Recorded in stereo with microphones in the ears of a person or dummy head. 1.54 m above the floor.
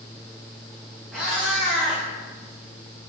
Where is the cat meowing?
Centre (ahead or behind), 1.1 m.